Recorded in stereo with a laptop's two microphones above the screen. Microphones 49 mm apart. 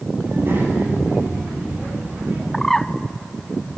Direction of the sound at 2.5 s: 10° left (ahead or behind).